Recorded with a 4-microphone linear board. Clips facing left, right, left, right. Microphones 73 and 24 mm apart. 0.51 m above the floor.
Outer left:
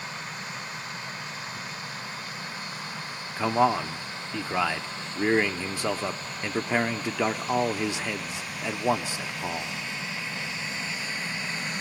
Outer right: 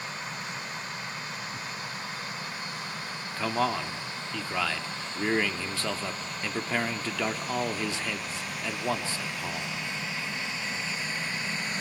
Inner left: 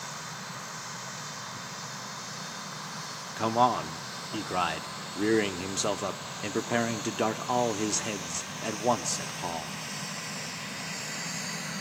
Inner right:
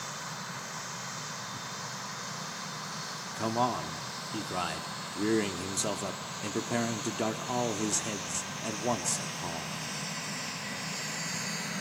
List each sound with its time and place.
1.5 s tearing paper: 75° right (ahead or behind), 4.5 m
3.4 s a man speaking: 20° left (ahead or behind), 0.8 m